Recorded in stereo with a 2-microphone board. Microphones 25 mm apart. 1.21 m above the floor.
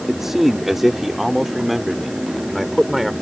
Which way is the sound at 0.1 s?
15° right (ahead or behind).